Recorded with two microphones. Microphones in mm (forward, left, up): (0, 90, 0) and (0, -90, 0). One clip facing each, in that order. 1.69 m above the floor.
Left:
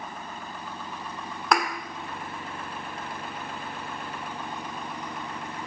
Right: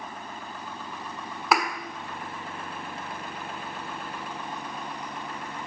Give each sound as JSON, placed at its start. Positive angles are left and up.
{"t": 1.5, "sound": "a thud", "side_deg": -5, "distance_m": 1.5}